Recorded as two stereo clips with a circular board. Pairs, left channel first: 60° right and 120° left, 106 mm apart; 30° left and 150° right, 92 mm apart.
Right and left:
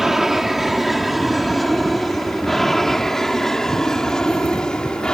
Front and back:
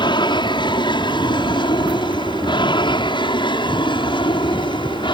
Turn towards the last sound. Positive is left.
turn(degrees=20)